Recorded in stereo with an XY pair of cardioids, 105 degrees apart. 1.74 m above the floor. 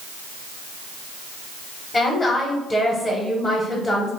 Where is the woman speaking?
20° left, 0.8 m.